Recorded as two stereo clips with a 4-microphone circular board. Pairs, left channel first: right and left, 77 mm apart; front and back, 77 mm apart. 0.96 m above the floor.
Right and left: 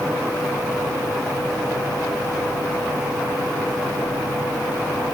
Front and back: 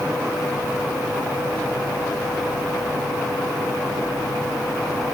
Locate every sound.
Only background noise.